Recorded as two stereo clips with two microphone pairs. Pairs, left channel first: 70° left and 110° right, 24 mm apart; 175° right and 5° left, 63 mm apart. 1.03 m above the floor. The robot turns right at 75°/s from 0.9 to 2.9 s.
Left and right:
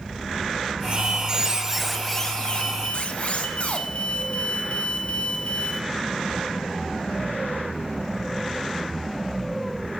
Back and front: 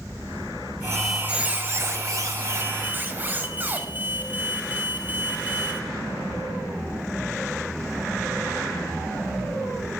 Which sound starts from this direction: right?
A squeak, at 0.9 s.